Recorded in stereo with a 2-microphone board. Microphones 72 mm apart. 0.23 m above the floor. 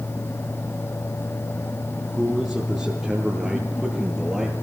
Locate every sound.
2.0 s a man speaking: centre (ahead or behind), 3.5 m; by 4.5 s 5° right (ahead or behind), 5.5 m